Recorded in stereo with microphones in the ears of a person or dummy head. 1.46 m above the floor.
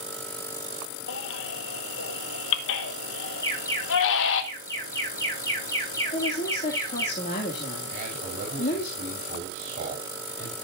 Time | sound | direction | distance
1.1 | a baby crying | 70° left (ahead or behind) | 1.7 m
3.4 | an alarm | 15° left (ahead or behind) | 8.5 m
6.1 | a woman speaking | 40° left (ahead or behind) | 2.5 m
7.9 | a man speaking | 45° right (ahead or behind) | 4.5 m